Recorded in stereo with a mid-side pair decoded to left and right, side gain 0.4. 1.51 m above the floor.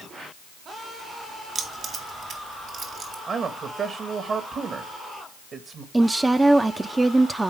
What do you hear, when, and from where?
1.6 s keys jangling: 55° right, 2.5 m; by 3.2 s 75° right, 3 m
3.3 s a man speaking: 55° right, 2.0 m
5.9 s a woman speaking: 20° right, 0.7 m